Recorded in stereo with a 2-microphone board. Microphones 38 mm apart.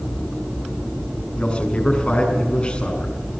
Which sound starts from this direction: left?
A man speaking, at 1.4 s.